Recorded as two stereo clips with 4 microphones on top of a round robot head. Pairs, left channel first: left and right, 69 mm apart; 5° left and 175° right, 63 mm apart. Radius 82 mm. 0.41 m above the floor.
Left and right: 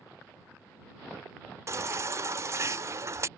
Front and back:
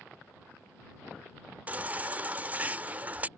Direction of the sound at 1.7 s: 120° right.